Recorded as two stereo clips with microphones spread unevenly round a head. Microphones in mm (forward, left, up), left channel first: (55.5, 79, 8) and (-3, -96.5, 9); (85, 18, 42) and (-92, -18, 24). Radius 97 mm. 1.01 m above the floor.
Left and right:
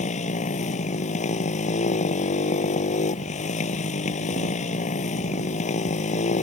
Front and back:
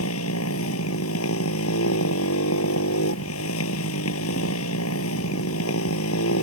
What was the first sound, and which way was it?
A motorcycle, 20° left.